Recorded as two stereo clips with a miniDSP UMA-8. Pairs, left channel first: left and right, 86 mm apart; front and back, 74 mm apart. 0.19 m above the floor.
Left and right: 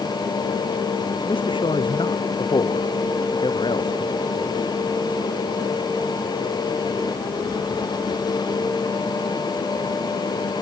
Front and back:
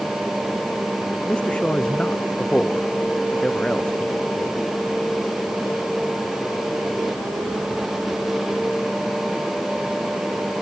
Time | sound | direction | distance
1.3 | a man speaking | 75° left | ?